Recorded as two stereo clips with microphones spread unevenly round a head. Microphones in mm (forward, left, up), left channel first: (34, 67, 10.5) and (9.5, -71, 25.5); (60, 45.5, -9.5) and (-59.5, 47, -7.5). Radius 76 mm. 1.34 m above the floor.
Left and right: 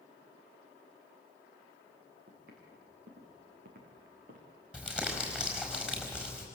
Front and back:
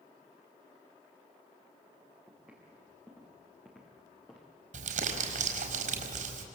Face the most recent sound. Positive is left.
turn(degrees=180)